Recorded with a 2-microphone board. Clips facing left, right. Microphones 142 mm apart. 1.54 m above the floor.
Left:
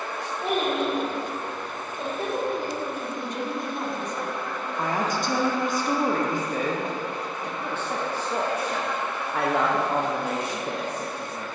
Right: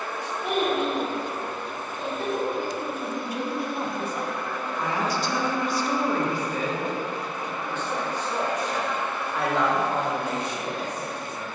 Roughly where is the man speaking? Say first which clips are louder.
Left 1 dB; left.